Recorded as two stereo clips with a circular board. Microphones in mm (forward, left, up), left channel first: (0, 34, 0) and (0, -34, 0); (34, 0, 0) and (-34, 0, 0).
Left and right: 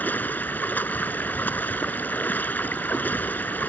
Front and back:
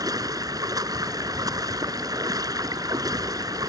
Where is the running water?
155° left.